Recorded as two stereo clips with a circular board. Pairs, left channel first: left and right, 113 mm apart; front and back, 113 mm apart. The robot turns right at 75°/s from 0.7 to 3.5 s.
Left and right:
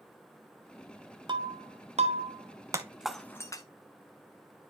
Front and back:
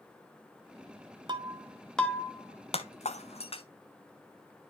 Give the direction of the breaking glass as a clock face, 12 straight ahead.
5 o'clock.